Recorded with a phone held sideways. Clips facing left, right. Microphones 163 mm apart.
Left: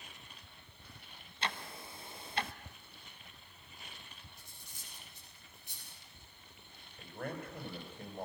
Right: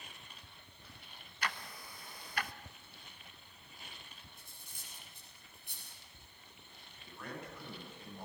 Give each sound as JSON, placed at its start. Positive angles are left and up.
{"t": 1.4, "sound": "ticking", "side_deg": 25, "distance_m": 1.1}
{"t": 4.4, "sound": "cutlery clinking", "side_deg": -55, "distance_m": 9.5}
{"t": 7.0, "sound": "a man speaking", "side_deg": 55, "distance_m": 8.5}